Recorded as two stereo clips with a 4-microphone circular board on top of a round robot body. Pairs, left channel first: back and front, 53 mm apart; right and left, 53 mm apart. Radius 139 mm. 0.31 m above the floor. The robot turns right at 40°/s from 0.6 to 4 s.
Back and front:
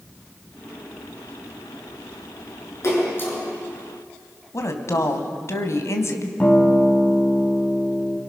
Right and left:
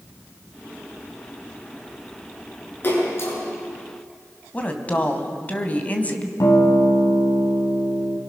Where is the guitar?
115° right, 3 m.